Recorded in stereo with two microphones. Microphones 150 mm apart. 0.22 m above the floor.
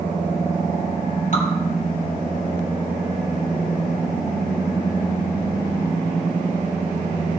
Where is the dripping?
55° left (ahead or behind), 3 m.